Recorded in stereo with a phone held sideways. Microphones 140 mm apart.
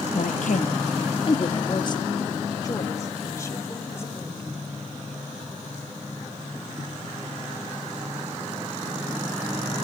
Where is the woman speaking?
75° left (ahead or behind), 0.7 m; by 4.4 s 20° left (ahead or behind), 3 m.